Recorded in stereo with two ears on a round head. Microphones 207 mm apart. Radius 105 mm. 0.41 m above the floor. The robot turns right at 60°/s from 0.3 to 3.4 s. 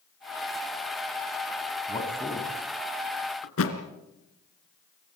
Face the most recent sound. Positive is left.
turn(degrees=70)  # may be behind; listen again after turning